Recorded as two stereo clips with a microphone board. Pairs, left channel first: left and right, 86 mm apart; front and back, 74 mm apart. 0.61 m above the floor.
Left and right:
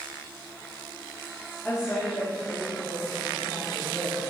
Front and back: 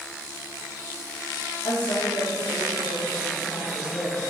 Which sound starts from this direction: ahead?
A woman speaking, at 1.6 s.